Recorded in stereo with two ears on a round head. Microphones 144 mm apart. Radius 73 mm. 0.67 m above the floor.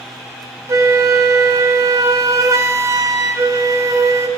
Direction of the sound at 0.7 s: 20° right (ahead or behind).